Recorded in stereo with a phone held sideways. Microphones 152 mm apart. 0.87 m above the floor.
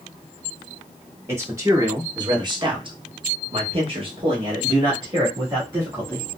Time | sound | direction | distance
1.3 | a man speaking | 15° right (ahead or behind) | 1.7 m